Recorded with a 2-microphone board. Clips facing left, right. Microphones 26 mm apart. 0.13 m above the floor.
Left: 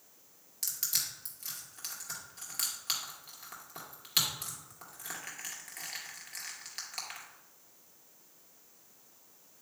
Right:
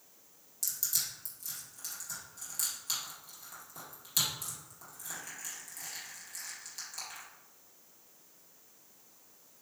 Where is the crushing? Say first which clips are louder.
Left 1 dB; 45° left (ahead or behind), 2.0 m.